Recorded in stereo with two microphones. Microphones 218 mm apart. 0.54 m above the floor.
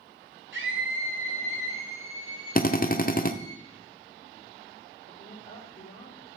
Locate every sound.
0.5 s a scream: 60° right (ahead or behind), 2.5 m; by 3.5 s 40° right (ahead or behind), 2.5 m
2.5 s a drill: 40° left (ahead or behind), 0.5 m
5.1 s a woman speaking: 45° left (ahead or behind), 1.6 m